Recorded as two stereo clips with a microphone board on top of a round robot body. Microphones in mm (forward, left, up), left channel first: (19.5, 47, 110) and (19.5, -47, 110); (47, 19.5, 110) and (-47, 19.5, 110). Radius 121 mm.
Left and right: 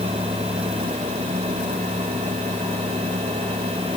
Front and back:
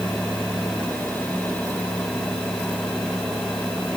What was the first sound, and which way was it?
Only background noise.